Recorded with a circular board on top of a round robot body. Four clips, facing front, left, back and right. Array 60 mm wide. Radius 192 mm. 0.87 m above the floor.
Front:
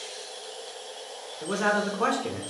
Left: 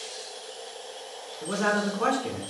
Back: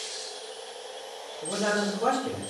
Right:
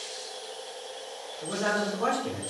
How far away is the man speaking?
About 1.7 m.